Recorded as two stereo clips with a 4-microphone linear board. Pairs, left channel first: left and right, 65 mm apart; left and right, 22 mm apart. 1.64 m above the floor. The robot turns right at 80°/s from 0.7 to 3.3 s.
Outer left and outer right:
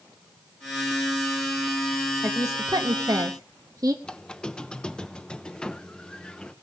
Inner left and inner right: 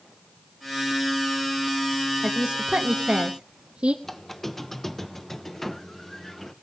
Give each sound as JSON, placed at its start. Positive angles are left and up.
{"t": 2.2, "sound": "a woman speaking", "side_deg": -35, "distance_m": 0.9}
{"t": 4.0, "sound": "a squeak", "side_deg": 15, "distance_m": 0.6}